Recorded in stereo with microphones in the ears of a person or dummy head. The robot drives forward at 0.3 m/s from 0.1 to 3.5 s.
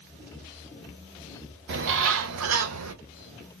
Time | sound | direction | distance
1.7 | a bird | 65° right (ahead or behind) | 0.7 m